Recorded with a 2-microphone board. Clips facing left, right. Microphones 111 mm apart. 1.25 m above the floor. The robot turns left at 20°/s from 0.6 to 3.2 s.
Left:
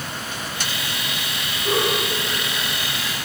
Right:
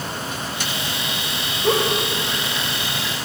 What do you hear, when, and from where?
1.6 s a giggle: 80° right, 1.6 m; by 3.3 s 60° right (ahead or behind), 1.6 m